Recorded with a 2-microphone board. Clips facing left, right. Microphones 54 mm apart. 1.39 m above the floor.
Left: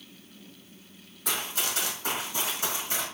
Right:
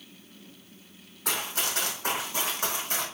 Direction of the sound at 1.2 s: 55° right (ahead or behind).